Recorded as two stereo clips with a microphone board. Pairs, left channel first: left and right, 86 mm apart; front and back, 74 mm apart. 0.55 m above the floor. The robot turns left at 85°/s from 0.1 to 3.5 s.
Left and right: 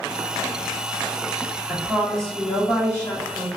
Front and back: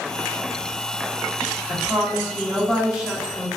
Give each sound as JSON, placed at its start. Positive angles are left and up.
{"t": 1.7, "sound": "a woman speaking", "azimuth_deg": -145, "distance_m": 1.5}